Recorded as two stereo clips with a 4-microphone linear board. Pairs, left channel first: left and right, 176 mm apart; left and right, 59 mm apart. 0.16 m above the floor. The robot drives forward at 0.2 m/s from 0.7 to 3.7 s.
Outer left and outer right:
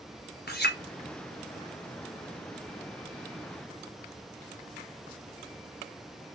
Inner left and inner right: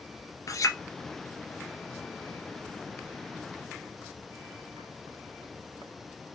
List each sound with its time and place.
0.5 s a clink: 65° left (ahead or behind), 1.9 m